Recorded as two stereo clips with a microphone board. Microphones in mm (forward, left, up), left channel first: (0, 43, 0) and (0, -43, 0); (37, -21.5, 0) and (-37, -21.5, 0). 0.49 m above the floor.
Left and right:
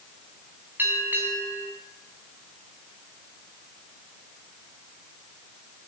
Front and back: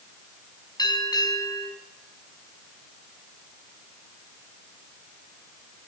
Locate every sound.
0.8 s a bell: 25° right, 5 m